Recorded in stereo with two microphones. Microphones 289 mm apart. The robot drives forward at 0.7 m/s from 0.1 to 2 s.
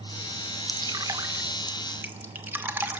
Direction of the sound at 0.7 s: 15° right (ahead or behind).